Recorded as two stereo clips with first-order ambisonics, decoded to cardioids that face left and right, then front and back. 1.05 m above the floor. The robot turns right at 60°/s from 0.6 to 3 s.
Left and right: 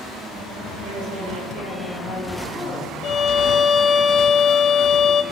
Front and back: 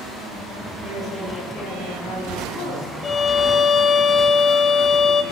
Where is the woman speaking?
100° right, 9.5 m; by 2.9 s 30° left, 9.5 m.